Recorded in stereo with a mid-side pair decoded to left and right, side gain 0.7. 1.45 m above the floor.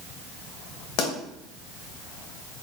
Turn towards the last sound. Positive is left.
turn(degrees=60)